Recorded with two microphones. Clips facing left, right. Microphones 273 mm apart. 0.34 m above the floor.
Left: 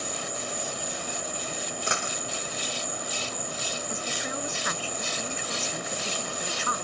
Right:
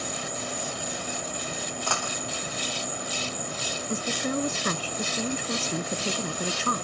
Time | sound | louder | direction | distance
0.0 | an insect | right 1 dB | 25° right (ahead or behind) | ?
1.9 | a dropped coin | right 1 dB | 20° left (ahead or behind) | ?
3.9 | a woman speaking | right 10 dB | 45° right (ahead or behind) | ?